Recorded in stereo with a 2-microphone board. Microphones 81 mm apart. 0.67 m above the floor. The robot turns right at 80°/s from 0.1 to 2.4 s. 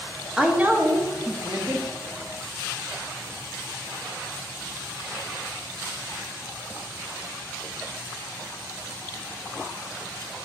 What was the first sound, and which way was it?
A woman speaking, 170° right.